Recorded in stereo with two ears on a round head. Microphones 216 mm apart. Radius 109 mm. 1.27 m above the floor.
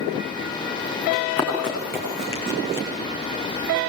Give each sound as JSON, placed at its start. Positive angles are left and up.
{"t": 1.1, "sound": "running footsteps", "side_deg": 5, "distance_m": 6.5}